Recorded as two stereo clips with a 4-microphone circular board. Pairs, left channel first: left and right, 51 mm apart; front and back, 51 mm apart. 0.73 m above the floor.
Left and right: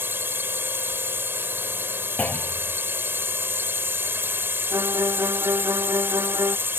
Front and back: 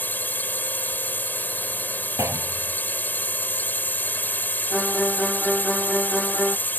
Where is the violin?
85° right.